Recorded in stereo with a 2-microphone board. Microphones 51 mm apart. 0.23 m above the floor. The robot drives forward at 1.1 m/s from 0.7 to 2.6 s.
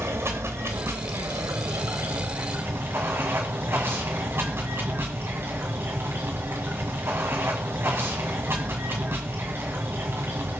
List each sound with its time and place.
0.0 s running water: 55° right (ahead or behind), 1.6 m; by 10.6 s 50° right (ahead or behind), 1.8 m